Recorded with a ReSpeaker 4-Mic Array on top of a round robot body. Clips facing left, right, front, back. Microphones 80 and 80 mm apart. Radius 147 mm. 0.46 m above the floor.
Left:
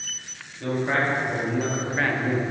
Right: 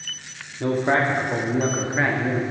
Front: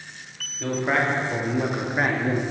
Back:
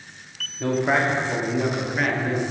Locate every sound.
0.6 s a man speaking: 110° right, 1.6 m; by 2.4 s 15° right, 1.3 m